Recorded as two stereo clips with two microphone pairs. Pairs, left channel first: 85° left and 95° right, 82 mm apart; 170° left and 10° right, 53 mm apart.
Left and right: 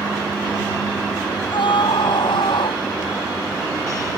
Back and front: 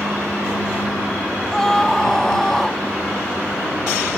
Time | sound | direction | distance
1.5 | a scream | 90° left | ?